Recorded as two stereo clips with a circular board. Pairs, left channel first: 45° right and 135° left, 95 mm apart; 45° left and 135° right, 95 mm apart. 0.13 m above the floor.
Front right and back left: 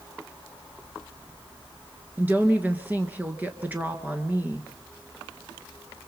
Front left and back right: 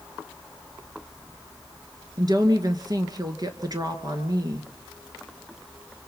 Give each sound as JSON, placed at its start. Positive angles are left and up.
{"t": 2.2, "sound": "a woman speaking", "azimuth_deg": -160, "distance_m": 2.0}